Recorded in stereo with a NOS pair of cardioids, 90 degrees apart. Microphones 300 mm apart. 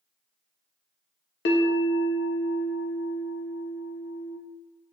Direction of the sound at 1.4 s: 40° left.